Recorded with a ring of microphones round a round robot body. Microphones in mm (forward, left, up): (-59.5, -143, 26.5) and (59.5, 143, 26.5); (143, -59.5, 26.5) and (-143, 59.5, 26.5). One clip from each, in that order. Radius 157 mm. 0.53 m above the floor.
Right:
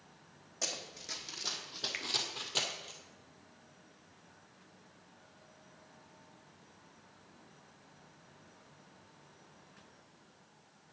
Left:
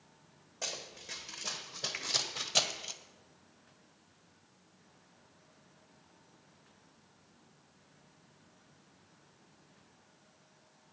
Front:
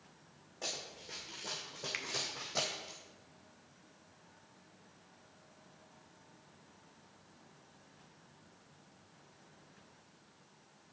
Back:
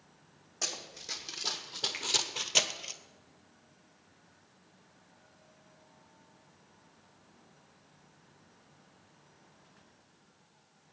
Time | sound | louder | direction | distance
0.6 | running footsteps | right 1 dB, back 5 dB | 175° right | 1.8 m
1.9 | a finger snap | right 1 dB, back 2 dB | 70° right | 1.0 m